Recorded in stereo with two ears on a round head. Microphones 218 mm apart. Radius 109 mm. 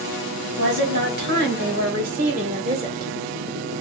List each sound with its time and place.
0.6 s a woman speaking: 50° right (ahead or behind), 2.5 m; by 3.1 s 15° right (ahead or behind), 1.3 m